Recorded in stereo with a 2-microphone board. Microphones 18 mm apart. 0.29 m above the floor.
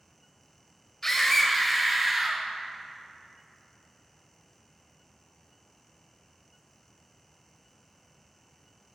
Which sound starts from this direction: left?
A scream, at 1.0 s.